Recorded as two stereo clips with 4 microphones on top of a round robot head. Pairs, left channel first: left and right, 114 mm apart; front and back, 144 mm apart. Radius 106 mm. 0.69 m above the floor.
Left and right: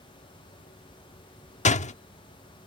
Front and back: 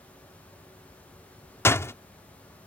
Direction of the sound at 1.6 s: 75° left.